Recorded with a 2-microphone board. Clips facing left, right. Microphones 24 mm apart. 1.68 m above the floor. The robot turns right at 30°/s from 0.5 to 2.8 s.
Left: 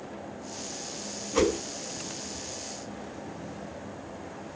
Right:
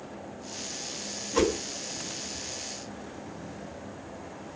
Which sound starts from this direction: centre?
A whoosh, at 1.3 s.